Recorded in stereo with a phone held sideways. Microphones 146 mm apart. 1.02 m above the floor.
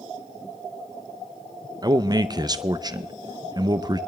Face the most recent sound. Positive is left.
turn(degrees=-25)  # may be behind; listen again after turning